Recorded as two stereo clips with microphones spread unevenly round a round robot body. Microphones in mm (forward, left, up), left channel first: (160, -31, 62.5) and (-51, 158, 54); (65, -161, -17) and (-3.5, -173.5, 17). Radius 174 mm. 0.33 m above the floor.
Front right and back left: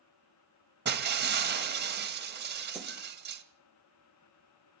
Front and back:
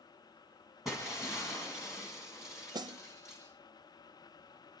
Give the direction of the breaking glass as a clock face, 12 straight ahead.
9 o'clock.